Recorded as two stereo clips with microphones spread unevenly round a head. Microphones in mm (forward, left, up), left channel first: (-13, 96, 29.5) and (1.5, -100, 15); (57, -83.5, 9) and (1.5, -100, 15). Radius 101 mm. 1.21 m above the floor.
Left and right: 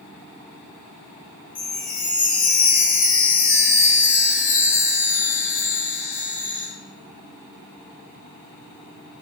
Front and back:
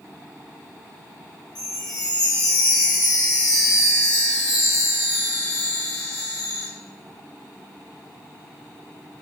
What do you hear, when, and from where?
1.6 s a chime: 45° left, 0.6 m